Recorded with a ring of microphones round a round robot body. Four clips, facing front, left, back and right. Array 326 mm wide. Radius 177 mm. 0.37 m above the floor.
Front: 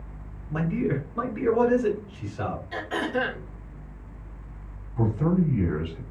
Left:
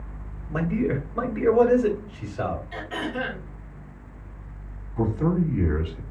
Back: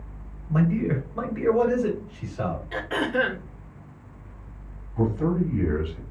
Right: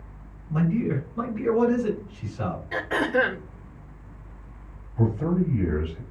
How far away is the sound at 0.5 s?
About 3 m.